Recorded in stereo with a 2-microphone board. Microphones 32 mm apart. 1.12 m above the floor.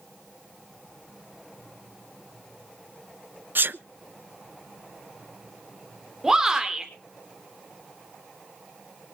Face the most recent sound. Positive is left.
turn(degrees=-15)  # may be behind; listen again after turning